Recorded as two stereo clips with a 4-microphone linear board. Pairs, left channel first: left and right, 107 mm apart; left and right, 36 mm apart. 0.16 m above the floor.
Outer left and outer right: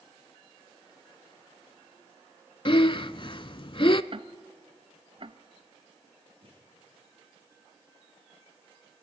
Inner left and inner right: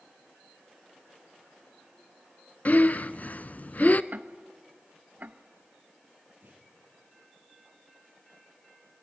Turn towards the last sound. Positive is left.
turn(degrees=-55)  # may be behind; listen again after turning